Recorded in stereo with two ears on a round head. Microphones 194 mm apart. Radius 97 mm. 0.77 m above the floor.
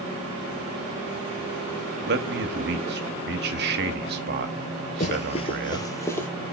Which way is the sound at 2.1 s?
50° right (ahead or behind).